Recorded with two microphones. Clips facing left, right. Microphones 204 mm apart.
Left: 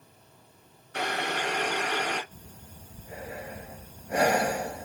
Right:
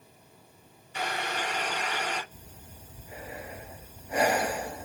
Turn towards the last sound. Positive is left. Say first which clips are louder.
# left 1 dB
turn(degrees=65)  # may be behind; listen again after turning